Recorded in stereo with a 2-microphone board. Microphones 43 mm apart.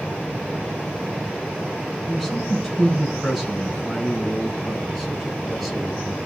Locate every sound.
2.1 s a man speaking: 5° left (ahead or behind), 7.5 m; by 6.2 s centre (ahead or behind), 5.5 m